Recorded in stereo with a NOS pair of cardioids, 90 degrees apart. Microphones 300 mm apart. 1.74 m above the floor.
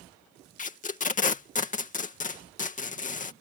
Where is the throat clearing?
No throat clearing in this recording.